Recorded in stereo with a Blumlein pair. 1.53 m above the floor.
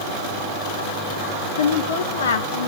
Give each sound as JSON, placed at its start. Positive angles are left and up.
{"t": 1.6, "sound": "a woman speaking", "azimuth_deg": 65, "distance_m": 2.5}